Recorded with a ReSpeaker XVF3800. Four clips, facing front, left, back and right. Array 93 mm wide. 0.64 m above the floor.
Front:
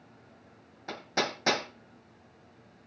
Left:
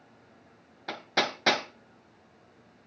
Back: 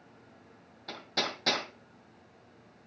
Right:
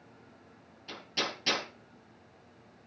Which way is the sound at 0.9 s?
70° left.